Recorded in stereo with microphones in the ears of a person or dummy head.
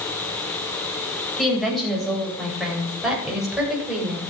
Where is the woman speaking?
Centre (ahead or behind), 8 m; by 4.2 s 5° right (ahead or behind), 6.5 m.